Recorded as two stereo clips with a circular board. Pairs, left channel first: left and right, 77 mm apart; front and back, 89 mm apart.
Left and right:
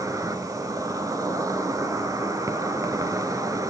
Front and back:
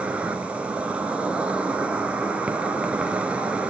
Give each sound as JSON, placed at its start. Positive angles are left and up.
{"t": 0.0, "sound": "an insect", "azimuth_deg": -105, "distance_m": 1.1}